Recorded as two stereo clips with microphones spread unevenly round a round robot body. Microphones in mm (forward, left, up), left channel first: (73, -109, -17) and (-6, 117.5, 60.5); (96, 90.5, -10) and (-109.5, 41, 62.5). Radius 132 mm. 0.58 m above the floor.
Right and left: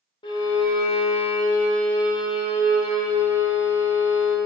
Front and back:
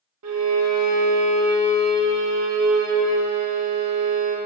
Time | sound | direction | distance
0.2 | a violin | 135° right | 0.9 m